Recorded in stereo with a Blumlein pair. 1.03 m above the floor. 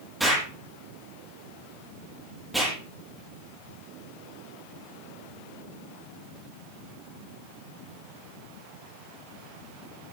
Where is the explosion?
5° right, 10 m.